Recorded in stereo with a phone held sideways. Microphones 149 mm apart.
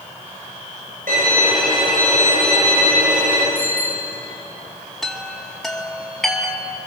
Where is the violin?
85° right, 7.5 m.